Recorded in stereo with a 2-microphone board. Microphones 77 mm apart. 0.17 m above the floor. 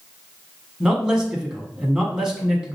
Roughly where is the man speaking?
Centre.